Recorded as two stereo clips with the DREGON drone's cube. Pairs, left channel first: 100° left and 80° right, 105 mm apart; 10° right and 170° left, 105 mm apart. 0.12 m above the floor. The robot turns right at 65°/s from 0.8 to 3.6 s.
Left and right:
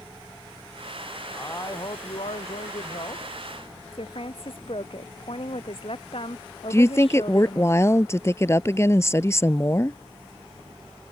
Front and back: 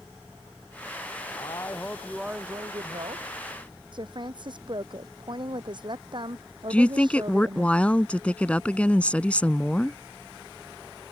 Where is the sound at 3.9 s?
130° left.